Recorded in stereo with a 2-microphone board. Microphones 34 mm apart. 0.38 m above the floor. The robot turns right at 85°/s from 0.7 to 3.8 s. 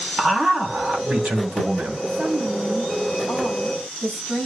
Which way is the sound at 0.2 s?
165° right.